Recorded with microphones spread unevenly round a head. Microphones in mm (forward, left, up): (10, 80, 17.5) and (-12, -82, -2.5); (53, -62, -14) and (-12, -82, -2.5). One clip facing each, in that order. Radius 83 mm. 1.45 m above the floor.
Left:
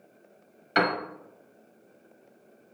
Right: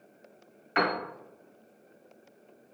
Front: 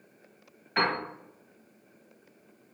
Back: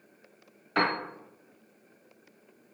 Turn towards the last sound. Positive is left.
turn(degrees=130)